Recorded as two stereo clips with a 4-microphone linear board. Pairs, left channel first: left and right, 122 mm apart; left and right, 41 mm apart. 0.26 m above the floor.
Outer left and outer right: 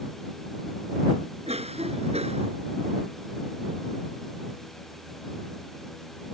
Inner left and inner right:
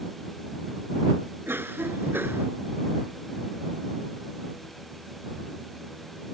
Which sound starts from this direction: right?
A cough, at 1.5 s.